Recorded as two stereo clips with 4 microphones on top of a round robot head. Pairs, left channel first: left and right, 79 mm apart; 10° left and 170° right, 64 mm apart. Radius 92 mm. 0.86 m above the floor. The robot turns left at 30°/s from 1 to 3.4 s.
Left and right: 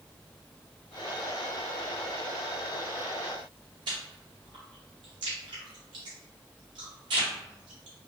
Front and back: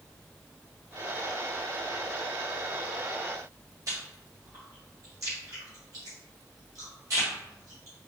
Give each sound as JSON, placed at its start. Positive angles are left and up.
{"t": 3.9, "sound": "chewing", "azimuth_deg": -125, "distance_m": 0.8}